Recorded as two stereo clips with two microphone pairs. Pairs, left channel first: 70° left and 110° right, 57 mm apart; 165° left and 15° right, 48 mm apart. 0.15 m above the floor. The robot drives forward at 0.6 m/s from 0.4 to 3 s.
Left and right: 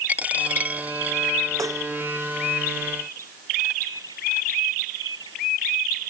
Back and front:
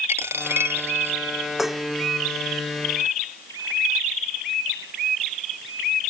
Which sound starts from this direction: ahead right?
A dropped coin, at 0.1 s.